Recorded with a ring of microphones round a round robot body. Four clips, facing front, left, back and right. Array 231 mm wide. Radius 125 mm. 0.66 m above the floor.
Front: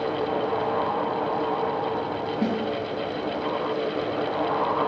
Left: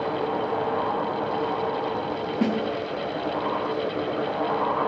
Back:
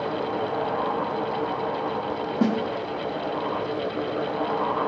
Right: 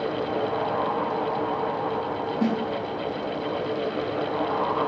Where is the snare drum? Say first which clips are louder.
Even, back 4 dB; 155° left, 1.5 m.